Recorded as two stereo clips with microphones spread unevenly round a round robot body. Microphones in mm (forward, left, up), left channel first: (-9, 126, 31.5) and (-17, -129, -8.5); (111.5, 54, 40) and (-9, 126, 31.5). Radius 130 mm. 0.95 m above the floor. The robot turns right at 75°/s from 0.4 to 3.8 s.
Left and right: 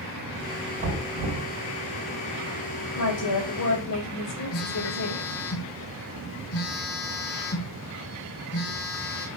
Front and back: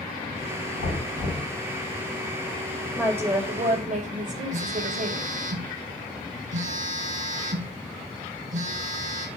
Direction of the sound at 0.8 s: 155° right.